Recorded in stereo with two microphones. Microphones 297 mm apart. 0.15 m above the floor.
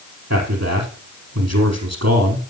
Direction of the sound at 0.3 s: 60° right (ahead or behind).